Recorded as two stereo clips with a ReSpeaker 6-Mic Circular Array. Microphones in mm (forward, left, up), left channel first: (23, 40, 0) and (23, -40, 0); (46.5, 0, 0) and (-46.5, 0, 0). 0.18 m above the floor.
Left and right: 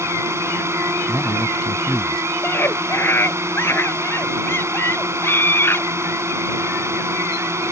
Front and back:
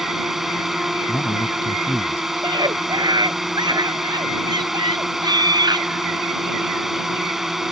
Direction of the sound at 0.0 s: 95° right.